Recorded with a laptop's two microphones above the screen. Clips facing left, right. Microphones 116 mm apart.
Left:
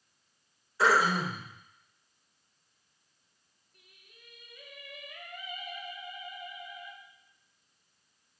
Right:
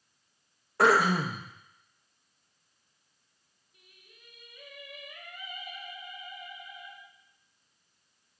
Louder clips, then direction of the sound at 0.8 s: Right 2 dB; 65° right (ahead or behind).